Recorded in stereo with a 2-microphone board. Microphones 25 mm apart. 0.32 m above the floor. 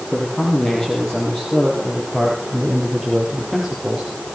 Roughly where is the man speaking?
Left.